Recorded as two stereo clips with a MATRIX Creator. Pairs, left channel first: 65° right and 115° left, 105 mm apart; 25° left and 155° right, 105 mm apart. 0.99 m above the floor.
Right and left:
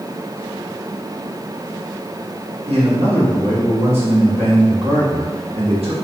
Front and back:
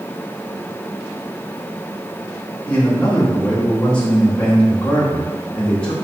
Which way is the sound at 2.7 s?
105° left.